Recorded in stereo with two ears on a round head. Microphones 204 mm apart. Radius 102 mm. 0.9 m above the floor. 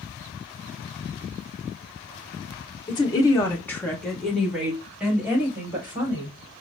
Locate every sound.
2.9 s a woman speaking: 20° left (ahead or behind), 0.7 m; by 6.4 s 10° right (ahead or behind), 2 m